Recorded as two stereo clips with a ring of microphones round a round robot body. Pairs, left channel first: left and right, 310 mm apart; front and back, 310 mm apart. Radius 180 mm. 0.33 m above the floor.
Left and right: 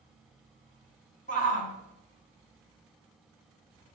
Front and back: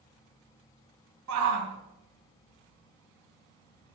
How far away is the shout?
About 2.5 m.